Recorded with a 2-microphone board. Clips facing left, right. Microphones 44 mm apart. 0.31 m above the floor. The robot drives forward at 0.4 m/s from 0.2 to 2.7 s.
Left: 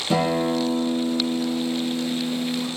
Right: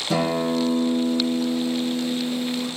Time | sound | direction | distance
0.1 | a guitar | 30° left (ahead or behind) | 1.6 m